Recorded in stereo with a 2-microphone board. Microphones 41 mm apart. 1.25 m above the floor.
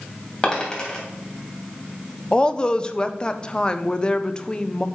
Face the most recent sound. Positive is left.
turn(degrees=25)  # may be behind; listen again after turning